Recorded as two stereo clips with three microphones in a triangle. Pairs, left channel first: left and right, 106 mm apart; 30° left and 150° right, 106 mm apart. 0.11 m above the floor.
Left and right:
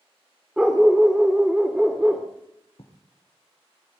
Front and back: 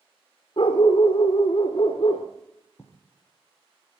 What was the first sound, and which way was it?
A dog barking, 5° right.